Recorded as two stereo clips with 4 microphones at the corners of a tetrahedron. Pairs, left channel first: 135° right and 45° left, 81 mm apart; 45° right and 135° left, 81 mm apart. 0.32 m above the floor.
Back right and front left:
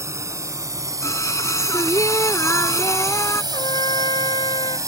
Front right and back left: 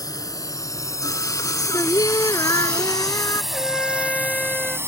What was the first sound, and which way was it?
A drone, 5° right.